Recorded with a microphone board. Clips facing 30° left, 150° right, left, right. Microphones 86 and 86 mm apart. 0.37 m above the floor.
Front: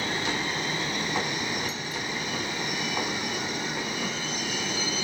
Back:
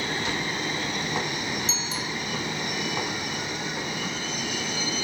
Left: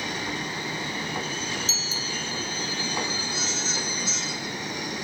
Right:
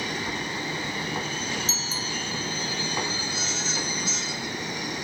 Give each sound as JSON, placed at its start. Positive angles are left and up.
{"t": 1.7, "sound": "a bicycle bell", "azimuth_deg": -140}